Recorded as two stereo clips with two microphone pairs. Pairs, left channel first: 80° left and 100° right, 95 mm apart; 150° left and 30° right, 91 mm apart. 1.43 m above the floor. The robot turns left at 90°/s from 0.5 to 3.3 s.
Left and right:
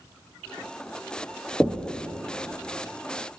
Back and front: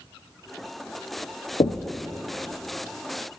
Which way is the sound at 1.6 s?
165° left.